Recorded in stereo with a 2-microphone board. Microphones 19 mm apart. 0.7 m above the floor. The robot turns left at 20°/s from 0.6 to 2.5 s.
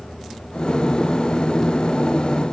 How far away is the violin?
No violin in this recording.